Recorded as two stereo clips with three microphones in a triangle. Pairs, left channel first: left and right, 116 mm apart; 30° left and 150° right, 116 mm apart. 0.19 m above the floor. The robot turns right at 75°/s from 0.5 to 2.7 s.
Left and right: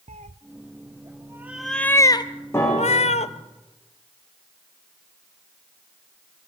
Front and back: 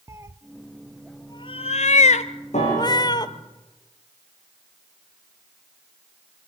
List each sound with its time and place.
0.1 s a cat meowing: 85° right, 0.5 m; by 3.3 s 80° left, 0.5 m
2.5 s a piano: 20° left, 8 m; by 3.4 s 35° left, 8 m